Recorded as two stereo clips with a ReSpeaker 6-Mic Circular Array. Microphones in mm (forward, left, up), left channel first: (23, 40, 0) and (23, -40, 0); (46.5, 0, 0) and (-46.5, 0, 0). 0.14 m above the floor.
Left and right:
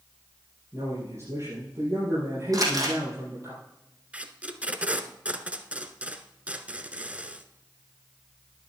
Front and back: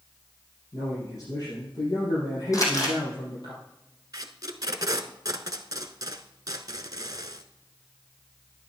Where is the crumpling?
50° right, 3 m.